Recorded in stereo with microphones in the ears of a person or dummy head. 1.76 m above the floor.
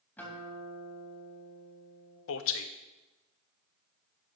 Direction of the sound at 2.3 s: 75° left (ahead or behind).